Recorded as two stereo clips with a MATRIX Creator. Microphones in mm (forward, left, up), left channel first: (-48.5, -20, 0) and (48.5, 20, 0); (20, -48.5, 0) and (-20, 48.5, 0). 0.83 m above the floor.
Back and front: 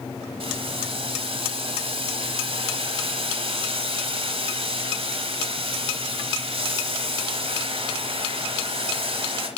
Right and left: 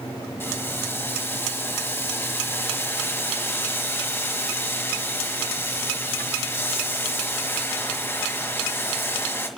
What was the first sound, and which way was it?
Boiling, straight ahead.